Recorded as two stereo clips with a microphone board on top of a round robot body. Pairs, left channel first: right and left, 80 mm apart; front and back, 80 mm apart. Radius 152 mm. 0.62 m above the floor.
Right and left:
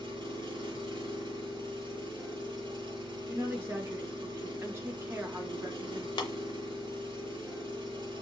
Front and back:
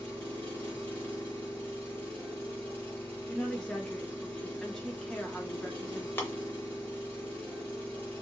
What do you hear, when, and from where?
0.0 s an engine running: 70° left, 1.4 m
3.3 s a woman speaking: 75° left, 1.2 m
6.2 s tapping: 65° right, 0.7 m